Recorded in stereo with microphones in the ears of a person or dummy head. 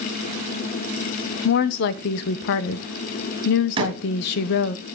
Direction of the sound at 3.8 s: 25° right (ahead or behind).